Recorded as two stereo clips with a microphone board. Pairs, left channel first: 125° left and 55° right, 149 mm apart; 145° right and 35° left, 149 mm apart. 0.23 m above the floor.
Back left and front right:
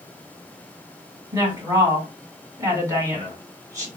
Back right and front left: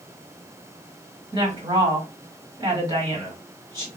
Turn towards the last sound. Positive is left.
turn(degrees=0)